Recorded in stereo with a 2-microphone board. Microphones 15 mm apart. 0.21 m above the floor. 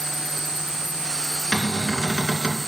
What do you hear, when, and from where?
0.0 s an insect: 15° right (ahead or behind), 3.5 m
1.5 s a cupboard door: 55° left (ahead or behind), 2 m